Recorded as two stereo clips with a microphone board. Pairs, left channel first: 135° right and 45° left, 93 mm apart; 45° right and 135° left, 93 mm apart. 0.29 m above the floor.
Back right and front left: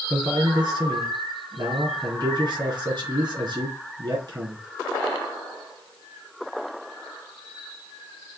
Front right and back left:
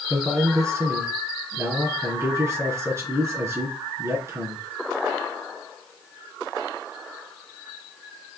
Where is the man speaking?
80° left, 4 m.